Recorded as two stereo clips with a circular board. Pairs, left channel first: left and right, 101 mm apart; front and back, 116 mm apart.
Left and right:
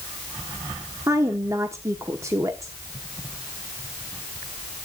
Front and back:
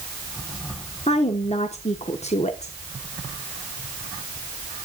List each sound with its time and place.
1.1 s a woman speaking: 25° right, 1.0 m